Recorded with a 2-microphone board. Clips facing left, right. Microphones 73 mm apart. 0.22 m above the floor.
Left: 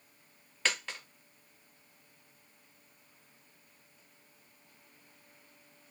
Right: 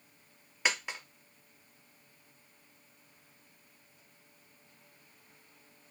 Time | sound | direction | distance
0.7 | a dropped coin | 15° right (ahead or behind) | 0.7 m